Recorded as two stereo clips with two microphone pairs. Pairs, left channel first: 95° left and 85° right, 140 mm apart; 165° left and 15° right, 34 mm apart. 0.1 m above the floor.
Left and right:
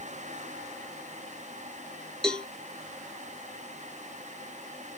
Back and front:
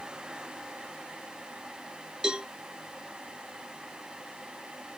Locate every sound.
2.2 s a cowbell: 15° left, 0.5 m